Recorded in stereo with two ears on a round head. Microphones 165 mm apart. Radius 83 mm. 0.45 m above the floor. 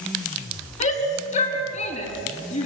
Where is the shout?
40° left (ahead or behind), 5.5 m.